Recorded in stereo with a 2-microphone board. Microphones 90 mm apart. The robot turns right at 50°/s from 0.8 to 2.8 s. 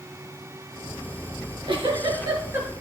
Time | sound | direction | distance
1.4 | a giggle | 85° right | 4 m